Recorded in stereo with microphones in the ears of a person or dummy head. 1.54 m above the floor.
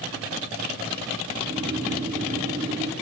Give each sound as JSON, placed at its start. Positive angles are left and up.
{"t": 1.3, "sound": "snoring", "side_deg": -25, "distance_m": 0.9}